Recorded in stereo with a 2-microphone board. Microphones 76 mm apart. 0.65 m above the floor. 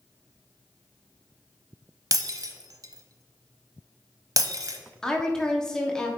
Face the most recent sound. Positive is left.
turn(degrees=10)  # may be behind; listen again after turning